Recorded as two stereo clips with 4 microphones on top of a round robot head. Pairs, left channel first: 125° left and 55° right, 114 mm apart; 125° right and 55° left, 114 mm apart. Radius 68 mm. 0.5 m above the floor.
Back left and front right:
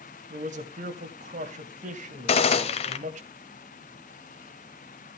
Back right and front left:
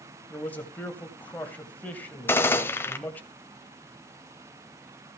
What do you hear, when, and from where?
0.3 s a man speaking: 50° right, 2.5 m
2.3 s a gunshot: 160° left, 1.4 m